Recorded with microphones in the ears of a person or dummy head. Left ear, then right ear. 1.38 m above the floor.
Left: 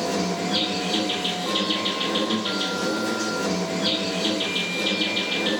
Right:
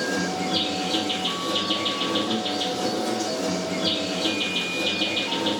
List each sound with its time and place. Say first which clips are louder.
0.0 s an insect: even; 10° left (ahead or behind), 1.5 m